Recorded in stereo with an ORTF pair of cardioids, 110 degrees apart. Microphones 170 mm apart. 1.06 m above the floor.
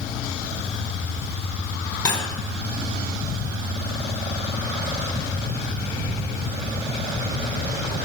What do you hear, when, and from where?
2.0 s cutlery clinking: 25° left, 2.5 m